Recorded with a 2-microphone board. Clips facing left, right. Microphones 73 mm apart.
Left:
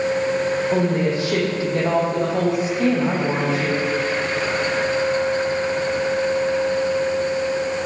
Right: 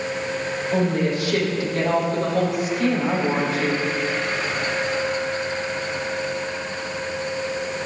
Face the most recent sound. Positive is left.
turn(degrees=30)  # may be behind; listen again after turning